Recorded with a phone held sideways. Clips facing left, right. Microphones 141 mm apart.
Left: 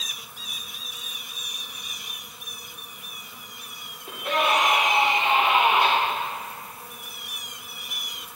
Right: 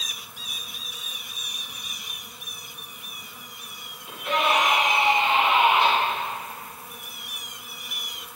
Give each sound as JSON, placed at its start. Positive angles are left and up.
{"t": 4.1, "sound": "a scream", "side_deg": 50, "distance_m": 2.5}